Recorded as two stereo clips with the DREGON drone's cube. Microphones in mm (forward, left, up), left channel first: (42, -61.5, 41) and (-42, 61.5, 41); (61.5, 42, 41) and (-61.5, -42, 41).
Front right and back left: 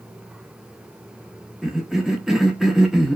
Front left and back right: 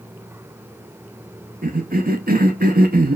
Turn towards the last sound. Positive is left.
turn(degrees=-145)